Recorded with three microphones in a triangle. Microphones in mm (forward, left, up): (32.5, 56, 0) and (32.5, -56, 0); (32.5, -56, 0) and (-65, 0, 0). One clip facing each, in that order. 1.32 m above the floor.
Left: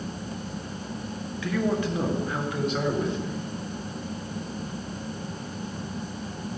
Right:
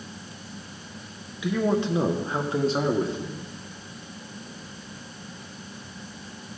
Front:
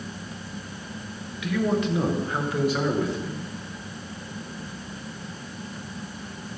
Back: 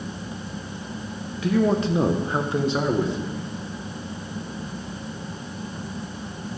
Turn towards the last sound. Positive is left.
turn(degrees=-140)